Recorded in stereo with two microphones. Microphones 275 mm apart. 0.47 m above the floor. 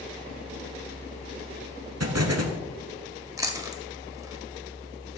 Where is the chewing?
15° right (ahead or behind), 1.5 m.